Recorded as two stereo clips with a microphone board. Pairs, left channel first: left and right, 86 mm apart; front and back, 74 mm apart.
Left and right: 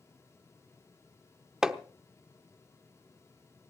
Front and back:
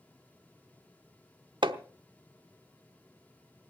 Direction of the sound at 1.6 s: 175° right.